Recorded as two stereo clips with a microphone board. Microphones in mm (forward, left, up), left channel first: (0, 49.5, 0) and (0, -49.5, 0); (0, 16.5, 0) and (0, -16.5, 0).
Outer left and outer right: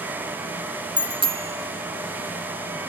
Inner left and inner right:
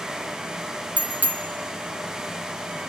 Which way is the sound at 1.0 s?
50° right (ahead or behind).